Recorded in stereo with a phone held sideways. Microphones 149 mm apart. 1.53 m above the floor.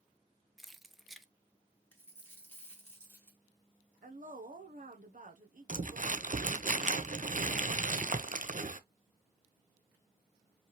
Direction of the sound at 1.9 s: 15° left (ahead or behind).